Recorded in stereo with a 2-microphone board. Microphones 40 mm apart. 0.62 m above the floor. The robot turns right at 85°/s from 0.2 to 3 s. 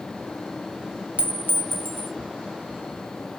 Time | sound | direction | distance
1.2 | a clink | 140° right | 0.6 m